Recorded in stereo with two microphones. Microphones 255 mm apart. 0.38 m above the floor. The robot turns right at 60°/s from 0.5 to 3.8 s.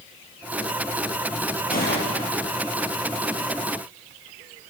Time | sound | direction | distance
1.7 | a gunshot | 30° left | 5 m